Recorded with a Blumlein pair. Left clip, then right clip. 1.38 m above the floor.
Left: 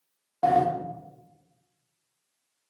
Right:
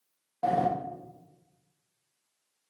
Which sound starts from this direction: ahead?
A sliding door, at 0.4 s.